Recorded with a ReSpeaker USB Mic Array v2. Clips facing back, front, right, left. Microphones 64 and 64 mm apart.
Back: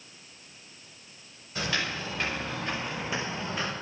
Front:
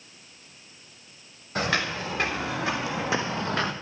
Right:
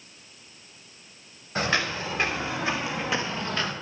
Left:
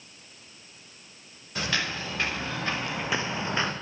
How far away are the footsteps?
About 2.5 m.